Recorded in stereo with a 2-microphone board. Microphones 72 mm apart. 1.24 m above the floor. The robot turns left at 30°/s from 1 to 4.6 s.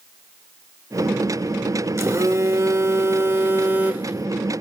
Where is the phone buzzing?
85° right, 1.1 m; by 4.6 s 160° right, 1.1 m.